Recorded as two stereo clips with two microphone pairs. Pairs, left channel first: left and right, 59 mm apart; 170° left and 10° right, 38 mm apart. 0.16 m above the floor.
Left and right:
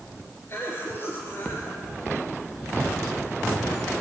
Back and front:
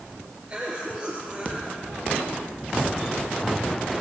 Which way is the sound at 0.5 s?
50° left.